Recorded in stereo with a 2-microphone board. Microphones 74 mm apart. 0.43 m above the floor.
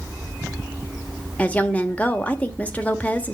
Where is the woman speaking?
20° left (ahead or behind), 1.1 m.